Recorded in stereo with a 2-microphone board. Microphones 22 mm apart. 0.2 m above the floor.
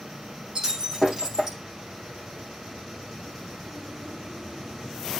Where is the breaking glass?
25° right (ahead or behind), 4.5 m.